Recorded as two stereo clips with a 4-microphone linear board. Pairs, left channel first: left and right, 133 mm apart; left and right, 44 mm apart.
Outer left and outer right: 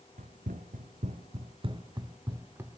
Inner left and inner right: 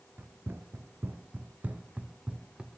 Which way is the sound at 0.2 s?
80° right.